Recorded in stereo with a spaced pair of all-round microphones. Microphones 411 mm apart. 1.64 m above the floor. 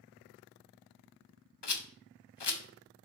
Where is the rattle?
80° left, 0.7 m.